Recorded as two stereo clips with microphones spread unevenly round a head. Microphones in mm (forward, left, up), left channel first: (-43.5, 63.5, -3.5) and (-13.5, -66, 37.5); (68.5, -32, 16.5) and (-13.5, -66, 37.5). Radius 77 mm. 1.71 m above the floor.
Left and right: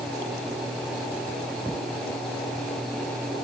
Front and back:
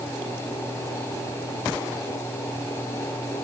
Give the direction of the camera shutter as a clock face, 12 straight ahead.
No camera shutter in this recording.